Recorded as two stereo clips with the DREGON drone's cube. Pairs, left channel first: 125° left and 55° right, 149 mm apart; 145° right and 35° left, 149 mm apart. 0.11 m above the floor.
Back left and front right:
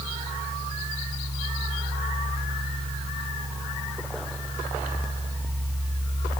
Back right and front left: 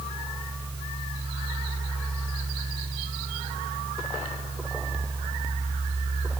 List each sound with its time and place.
Only background noise.